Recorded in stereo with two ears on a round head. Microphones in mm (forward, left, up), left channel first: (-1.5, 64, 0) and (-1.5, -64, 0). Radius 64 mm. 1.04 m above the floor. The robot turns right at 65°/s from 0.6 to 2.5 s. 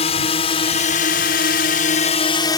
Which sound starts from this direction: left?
A drone, at 0.0 s.